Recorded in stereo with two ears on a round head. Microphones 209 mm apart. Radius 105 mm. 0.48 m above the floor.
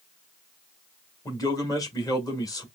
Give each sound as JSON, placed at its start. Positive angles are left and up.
{"t": 1.2, "sound": "a man speaking", "side_deg": 15, "distance_m": 1.7}